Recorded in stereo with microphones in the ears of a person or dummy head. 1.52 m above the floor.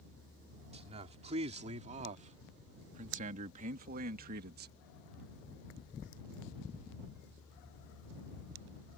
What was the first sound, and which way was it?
A man speaking, 30° right (ahead or behind).